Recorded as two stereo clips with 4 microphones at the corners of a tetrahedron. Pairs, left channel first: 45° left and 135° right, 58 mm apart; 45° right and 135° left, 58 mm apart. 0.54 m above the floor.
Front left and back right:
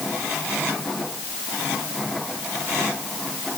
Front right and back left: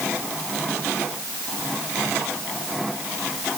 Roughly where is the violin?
I don't hear a violin.